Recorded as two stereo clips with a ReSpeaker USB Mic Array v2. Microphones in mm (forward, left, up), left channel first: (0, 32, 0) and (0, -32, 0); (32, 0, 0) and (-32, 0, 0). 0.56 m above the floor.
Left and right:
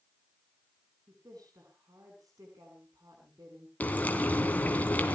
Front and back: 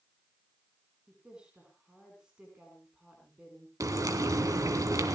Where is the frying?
155° left, 2.5 m.